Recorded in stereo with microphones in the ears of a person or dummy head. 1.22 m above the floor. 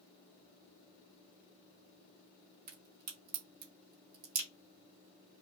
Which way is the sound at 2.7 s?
40° right (ahead or behind).